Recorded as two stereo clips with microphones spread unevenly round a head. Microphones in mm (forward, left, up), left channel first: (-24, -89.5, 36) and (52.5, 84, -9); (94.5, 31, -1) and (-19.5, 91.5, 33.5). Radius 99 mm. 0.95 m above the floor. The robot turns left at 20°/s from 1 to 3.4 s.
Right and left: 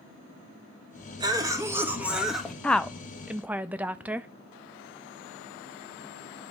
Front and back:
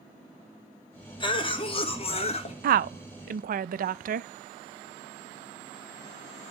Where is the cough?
10° left, 1.6 m; by 2.5 s 20° right, 1.6 m.